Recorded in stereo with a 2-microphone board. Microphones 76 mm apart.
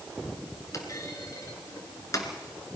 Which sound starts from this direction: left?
A clunk, at 0.7 s.